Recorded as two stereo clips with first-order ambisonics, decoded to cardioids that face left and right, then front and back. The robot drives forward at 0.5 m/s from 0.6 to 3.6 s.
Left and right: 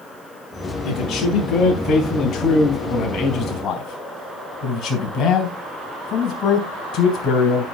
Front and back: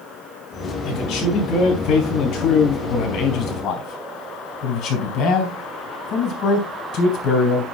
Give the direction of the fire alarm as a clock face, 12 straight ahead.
No fire alarm in this recording.